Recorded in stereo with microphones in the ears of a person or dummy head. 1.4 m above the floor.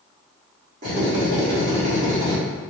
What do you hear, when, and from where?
0.8 s a drill: 45° right (ahead or behind), 1.5 m